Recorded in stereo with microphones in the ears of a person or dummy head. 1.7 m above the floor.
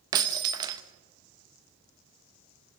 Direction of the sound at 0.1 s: 20° right (ahead or behind).